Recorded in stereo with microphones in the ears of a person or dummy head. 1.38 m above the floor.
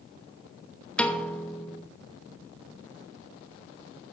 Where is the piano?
5° left (ahead or behind), 0.5 m.